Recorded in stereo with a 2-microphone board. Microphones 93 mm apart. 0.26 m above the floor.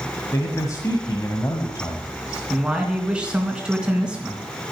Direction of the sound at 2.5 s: 10° right (ahead or behind).